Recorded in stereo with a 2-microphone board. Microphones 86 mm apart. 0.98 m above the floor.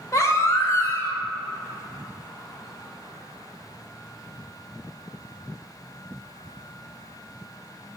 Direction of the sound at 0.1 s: 35° left (ahead or behind).